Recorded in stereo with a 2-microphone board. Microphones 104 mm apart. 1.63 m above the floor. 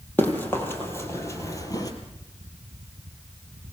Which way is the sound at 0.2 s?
15° left (ahead or behind).